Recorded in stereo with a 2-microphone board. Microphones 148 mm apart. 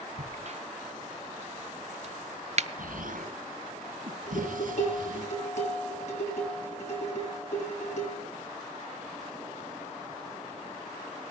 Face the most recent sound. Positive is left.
turn(degrees=55)  # may be behind; listen again after turning